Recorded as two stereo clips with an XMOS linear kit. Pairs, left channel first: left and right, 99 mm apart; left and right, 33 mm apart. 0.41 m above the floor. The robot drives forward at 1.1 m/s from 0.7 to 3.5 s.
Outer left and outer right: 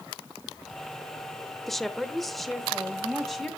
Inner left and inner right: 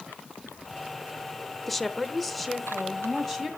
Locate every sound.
1.7 s a woman speaking: 5° left (ahead or behind), 0.8 m; by 3.5 s centre (ahead or behind), 2.5 m